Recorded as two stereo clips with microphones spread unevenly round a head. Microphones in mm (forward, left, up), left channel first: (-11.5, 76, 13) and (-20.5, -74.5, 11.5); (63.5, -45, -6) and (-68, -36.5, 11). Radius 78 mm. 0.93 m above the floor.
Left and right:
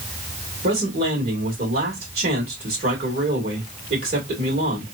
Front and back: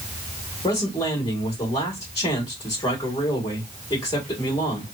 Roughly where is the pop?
No pop in this recording.